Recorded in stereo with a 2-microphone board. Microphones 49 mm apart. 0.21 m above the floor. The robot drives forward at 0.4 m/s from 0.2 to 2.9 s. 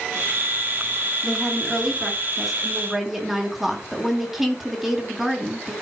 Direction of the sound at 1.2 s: 5° right (ahead or behind).